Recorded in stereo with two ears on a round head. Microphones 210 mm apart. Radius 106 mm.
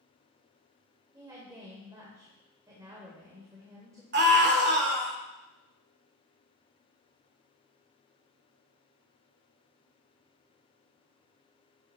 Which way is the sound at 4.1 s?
45° right (ahead or behind).